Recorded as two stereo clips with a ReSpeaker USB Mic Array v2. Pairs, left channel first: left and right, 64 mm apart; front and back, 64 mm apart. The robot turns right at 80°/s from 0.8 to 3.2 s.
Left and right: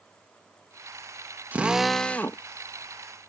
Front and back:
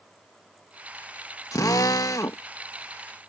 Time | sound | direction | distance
1.5 | a drill | 30° right | ?